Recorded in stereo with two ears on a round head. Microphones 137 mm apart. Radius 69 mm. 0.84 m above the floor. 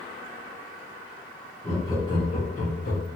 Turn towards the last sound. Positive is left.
turn(degrees=65)  # may be behind; listen again after turning